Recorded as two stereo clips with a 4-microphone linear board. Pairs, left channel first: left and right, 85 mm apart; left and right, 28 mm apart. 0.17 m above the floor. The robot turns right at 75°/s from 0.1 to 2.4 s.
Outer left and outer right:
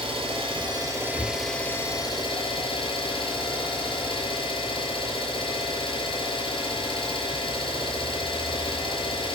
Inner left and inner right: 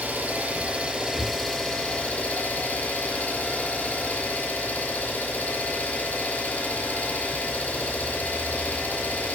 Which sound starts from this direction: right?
An engine running, at 0.0 s.